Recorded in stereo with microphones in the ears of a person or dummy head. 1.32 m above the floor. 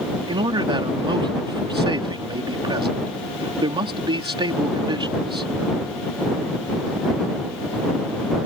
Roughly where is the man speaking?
Right.